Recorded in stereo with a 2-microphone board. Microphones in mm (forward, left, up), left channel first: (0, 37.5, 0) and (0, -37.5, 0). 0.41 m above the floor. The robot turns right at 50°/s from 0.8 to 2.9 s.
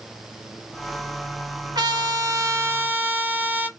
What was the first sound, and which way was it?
A trumpet, 85° right.